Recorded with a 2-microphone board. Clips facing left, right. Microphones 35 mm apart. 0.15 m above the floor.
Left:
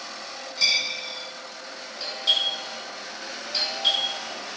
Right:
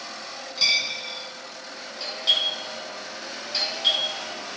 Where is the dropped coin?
30° right (ahead or behind), 1.4 m.